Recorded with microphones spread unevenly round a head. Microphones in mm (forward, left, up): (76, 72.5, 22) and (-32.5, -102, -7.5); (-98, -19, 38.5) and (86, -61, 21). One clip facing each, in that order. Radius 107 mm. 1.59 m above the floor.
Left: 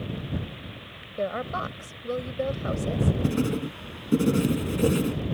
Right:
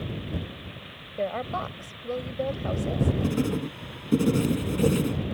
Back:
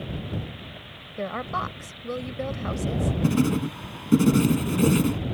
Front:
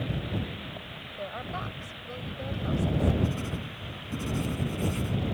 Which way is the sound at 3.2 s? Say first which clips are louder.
Left 1 dB, back 11 dB; 145° left.